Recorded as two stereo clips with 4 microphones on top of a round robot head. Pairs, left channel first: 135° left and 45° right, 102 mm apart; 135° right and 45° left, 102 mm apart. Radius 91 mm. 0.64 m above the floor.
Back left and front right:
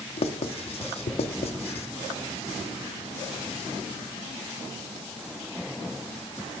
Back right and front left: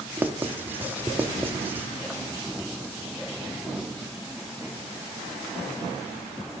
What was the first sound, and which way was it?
Writing, 115° left.